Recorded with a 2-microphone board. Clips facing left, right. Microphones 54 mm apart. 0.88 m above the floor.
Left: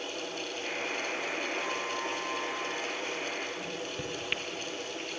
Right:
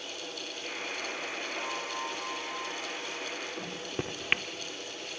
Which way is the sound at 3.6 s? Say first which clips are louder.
Even; 40° right (ahead or behind).